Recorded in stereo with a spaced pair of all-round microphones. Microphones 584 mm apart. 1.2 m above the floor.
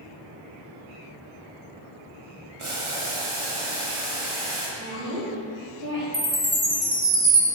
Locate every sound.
2.6 s boiling: 55° right (ahead or behind), 1.8 m
4.8 s a woman speaking: 40° right (ahead or behind), 3 m
6.1 s a chime: 55° right (ahead or behind), 3 m